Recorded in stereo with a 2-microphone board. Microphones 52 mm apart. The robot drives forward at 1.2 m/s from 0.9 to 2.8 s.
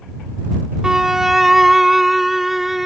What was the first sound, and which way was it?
A violin, 10° right (ahead or behind).